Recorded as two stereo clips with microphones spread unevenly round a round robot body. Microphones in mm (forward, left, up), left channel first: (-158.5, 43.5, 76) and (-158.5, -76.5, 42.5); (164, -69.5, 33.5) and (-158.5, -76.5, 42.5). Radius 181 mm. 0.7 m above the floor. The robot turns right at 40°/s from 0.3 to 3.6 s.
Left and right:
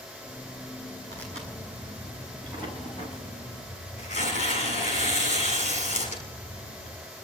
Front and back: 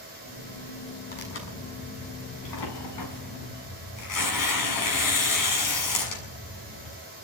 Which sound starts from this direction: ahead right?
Tearing paper, at 1.1 s.